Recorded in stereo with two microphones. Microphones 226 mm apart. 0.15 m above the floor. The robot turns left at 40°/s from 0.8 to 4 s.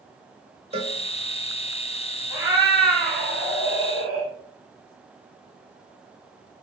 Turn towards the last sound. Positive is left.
turn(degrees=-80)